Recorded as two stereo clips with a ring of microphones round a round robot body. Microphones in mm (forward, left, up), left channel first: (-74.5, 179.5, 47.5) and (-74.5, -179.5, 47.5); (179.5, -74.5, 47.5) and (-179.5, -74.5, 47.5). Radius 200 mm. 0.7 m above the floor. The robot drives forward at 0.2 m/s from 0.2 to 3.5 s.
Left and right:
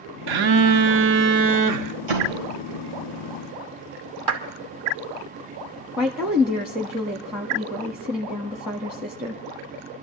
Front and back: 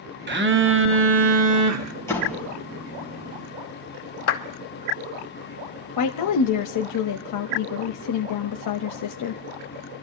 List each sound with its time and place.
0.3 s a phone buzzing: 115° right, 0.9 m; by 1.9 s 130° right, 1.1 m
2.1 s a door slam: 85° right, 3 m
4.3 s a clap: 50° right, 2.0 m
6.0 s a woman speaking: 5° right, 0.8 m